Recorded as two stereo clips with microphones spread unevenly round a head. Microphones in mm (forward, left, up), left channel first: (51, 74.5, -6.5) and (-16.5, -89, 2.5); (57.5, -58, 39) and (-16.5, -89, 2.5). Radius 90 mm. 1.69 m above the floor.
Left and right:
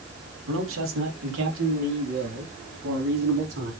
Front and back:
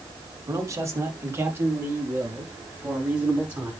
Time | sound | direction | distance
0.5 | a man speaking | 110° right | 3.5 m